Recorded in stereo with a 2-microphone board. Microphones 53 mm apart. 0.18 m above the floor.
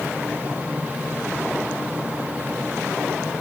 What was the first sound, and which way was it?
Only background noise.